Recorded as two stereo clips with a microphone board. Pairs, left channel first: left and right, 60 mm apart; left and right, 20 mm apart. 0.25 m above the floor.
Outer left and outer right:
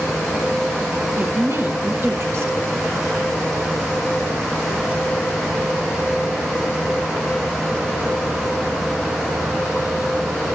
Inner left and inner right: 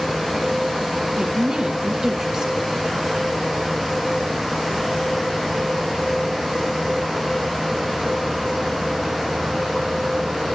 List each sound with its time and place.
1.2 s a woman speaking: 45° right (ahead or behind), 3 m